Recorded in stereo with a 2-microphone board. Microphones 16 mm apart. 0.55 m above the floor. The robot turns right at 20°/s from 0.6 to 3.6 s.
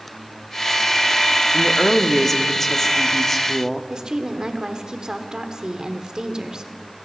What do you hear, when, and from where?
1.5 s a woman speaking: 20° left (ahead or behind), 0.8 m; by 3.8 s 30° left (ahead or behind), 0.8 m
3.9 s a woman speaking: 50° right (ahead or behind), 1.2 m